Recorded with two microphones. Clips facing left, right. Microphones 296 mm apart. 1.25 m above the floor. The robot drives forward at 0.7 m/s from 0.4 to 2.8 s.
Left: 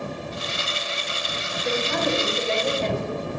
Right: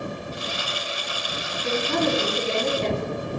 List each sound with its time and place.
1.6 s a woman speaking: 55° right (ahead or behind), 3 m; by 3.1 s 40° right (ahead or behind), 3.5 m